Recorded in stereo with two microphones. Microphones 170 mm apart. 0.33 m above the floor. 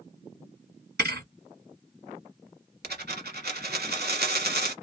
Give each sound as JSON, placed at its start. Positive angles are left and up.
{"t": 1.0, "sound": "a thud", "side_deg": -80, "distance_m": 1.9}
{"t": 2.8, "sound": "a dropped coin", "side_deg": -80, "distance_m": 1.1}